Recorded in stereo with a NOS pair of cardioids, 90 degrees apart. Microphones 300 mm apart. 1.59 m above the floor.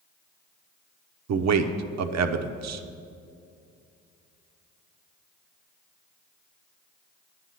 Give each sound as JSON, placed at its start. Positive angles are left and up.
{"t": 1.3, "sound": "a man speaking", "azimuth_deg": -65, "distance_m": 1.0}